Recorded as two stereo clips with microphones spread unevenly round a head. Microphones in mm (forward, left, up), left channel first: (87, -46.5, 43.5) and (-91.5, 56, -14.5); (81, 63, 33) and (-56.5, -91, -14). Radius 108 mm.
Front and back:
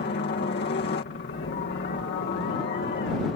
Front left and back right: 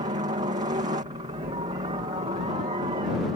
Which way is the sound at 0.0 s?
75° right.